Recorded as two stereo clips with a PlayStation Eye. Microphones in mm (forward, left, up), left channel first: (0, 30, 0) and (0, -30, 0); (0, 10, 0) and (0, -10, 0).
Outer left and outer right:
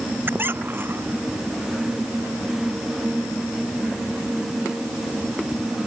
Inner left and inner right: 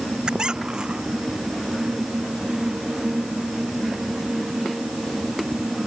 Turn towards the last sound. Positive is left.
turn(degrees=-35)  # may be behind; listen again after turning